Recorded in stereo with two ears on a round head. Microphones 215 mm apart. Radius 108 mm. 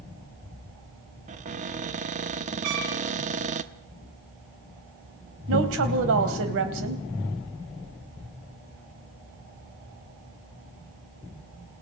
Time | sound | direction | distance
1.3 | a cupboard door | 30° right (ahead or behind) | 1.0 m
2.6 | a trumpet | 85° right | 5 m
5.5 | a woman speaking | 60° right (ahead or behind) | 3.5 m